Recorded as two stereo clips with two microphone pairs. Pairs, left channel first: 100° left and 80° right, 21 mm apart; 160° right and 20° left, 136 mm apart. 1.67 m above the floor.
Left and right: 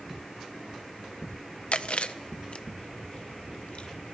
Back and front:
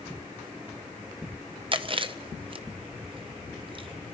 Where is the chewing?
70° left, 0.6 m.